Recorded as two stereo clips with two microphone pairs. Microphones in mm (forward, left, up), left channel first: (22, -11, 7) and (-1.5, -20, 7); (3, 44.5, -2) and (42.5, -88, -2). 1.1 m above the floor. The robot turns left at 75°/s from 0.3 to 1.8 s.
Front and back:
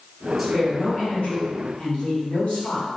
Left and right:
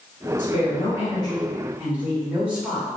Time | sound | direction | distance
0.4 | a woman speaking | 110° left | 1.0 m